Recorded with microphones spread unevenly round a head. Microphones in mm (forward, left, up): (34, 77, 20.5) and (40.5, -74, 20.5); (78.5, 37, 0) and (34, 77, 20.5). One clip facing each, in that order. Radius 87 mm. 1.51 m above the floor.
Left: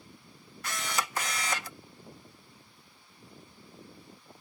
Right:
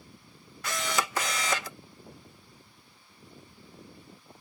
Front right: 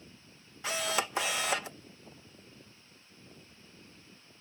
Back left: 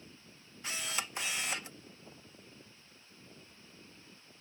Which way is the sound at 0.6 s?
75° right.